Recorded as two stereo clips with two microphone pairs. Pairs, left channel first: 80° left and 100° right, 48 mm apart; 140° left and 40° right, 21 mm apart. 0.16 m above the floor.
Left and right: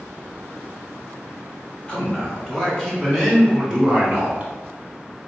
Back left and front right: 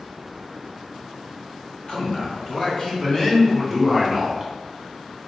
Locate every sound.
1.9 s a man speaking: 145° left, 1.9 m; by 4.5 s 100° right, 1.4 m